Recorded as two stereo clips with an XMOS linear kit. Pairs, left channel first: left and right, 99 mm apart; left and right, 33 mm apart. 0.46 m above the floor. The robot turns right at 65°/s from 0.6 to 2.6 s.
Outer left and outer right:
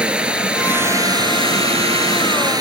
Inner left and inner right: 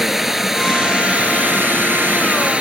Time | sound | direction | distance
0.0 | running water | 170° right | ?